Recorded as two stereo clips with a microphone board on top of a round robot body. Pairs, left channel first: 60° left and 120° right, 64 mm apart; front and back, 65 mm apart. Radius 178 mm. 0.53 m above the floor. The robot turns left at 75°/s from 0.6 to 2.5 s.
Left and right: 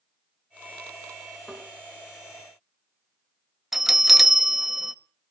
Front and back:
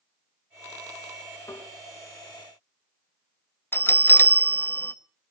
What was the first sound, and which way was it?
Tapping, 25° right.